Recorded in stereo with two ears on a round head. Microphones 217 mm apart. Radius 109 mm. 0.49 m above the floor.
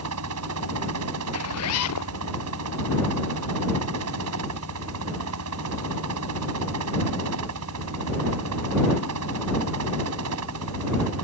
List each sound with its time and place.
0.0 s a helicopter: 70° right (ahead or behind)
1.3 s a zipper: 70° left (ahead or behind)